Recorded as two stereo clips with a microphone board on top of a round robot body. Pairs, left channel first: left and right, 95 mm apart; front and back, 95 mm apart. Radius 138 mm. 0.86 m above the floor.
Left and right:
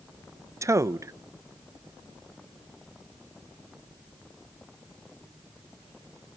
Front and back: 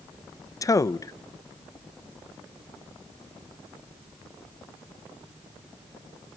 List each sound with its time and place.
0.6 s a man speaking: 40° right, 0.7 m